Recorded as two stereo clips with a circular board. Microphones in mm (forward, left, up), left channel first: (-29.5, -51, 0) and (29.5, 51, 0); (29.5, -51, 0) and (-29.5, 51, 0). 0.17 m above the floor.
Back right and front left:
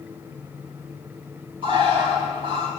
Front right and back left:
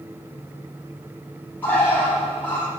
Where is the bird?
20° left, 5 m.